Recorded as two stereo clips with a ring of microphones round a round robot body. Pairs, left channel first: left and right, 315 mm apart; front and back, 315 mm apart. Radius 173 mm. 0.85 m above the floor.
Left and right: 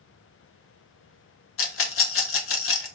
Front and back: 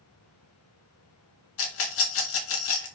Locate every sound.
1.6 s a rattle: 45° left, 1.7 m